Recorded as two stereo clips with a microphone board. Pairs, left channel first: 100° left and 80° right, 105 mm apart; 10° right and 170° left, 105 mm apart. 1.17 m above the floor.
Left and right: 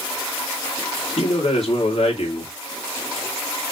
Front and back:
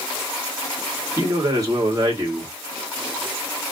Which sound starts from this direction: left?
A man speaking, at 1.2 s.